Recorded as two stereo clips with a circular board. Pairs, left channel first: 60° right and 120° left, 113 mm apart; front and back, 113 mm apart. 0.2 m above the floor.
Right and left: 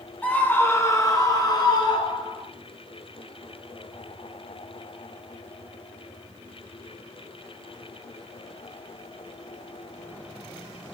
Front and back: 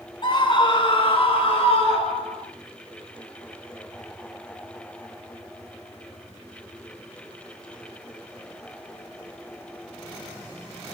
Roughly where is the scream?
Ahead.